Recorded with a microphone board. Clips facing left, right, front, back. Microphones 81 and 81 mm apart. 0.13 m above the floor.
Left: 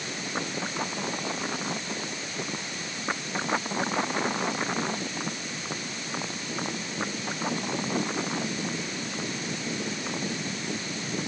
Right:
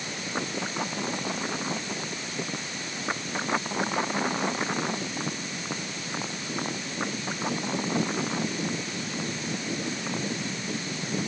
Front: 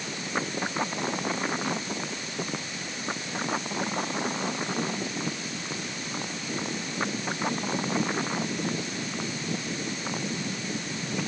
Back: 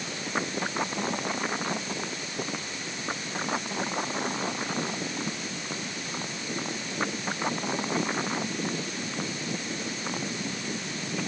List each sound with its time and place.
Only background noise.